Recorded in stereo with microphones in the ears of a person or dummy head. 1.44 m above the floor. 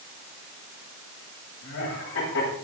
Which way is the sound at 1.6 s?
75° left (ahead or behind).